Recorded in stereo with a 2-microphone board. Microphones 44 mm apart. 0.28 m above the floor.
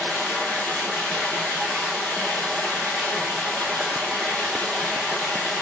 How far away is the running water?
About 3.5 m.